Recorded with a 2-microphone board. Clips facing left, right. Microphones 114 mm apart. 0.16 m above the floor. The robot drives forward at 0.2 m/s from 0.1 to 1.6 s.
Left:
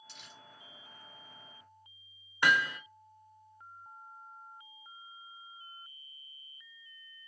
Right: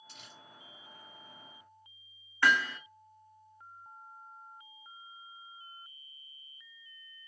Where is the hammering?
15° left (ahead or behind), 1.1 m.